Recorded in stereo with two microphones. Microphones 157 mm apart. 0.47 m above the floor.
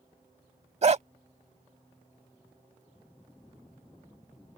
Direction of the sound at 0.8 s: 45° right (ahead or behind).